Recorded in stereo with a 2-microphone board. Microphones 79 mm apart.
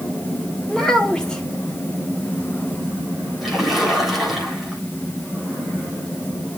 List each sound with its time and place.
0.7 s a child speaking: 10° left (ahead or behind), 2.0 m
3.4 s a splash: centre (ahead or behind), 3.5 m